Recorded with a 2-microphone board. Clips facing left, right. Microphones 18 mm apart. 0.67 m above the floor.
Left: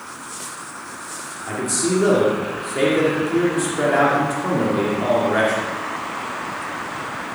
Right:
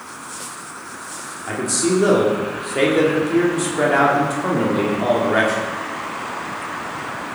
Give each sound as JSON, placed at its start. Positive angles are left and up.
{"t": 1.5, "sound": "a man speaking", "side_deg": -10, "distance_m": 1.7}